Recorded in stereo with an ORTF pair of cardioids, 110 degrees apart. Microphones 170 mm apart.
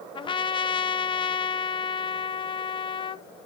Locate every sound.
0.1 s a trumpet: 30° left, 0.7 m